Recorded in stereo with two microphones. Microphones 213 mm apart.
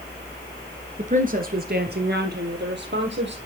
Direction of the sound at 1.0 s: 35° right (ahead or behind).